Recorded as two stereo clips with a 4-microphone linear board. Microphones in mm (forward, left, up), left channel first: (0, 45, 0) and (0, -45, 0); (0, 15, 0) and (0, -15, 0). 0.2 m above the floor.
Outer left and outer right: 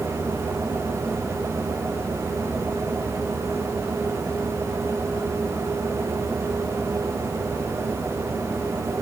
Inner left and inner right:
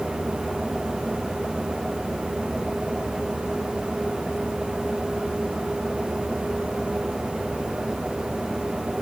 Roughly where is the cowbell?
I don't hear a cowbell.